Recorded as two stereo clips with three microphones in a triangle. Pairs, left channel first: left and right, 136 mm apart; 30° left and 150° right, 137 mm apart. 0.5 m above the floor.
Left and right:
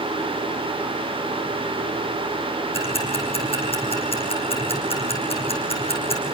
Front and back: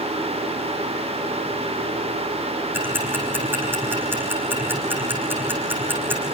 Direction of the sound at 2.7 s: 135° left.